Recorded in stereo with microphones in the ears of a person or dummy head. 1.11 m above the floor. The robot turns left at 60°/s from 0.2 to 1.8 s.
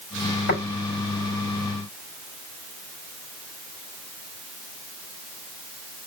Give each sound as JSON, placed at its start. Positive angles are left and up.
{"t": 0.5, "sound": "tapping", "side_deg": 85, "distance_m": 4.0}